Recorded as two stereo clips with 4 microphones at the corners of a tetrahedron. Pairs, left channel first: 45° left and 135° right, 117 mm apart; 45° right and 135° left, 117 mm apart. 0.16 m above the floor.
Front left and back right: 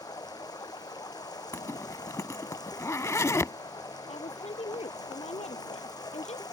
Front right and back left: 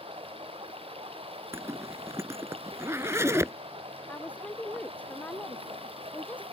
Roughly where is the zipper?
Left.